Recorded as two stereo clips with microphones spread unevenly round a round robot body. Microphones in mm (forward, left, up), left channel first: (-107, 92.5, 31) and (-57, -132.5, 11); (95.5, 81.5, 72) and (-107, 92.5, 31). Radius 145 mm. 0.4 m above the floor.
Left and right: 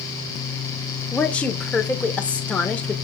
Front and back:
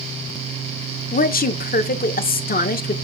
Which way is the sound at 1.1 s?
15° left.